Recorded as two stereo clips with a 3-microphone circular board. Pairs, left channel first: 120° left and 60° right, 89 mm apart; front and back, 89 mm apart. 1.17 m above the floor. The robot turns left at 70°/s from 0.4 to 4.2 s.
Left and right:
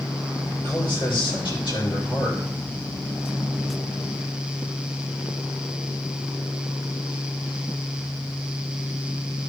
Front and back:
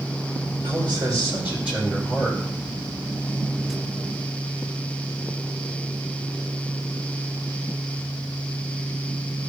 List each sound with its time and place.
0.6 s a man speaking: 175° left, 5.5 m; by 2.4 s 50° left, 5.5 m